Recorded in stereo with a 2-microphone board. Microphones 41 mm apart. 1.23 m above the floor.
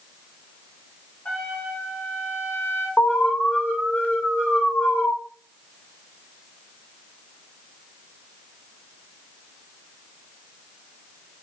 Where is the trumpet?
50° left (ahead or behind), 4.5 m.